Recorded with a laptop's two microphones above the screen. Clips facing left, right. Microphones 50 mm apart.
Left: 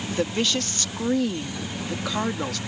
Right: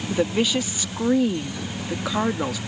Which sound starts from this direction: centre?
A woman speaking, at 0.1 s.